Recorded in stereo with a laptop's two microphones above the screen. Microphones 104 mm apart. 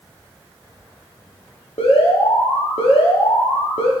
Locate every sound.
1.8 s an alarm: 75° left (ahead or behind), 1.6 m